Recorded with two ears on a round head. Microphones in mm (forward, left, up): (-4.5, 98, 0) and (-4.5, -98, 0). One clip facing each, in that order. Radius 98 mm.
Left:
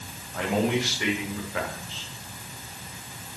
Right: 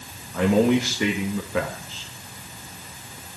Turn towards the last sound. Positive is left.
turn(degrees=-75)  # may be behind; listen again after turning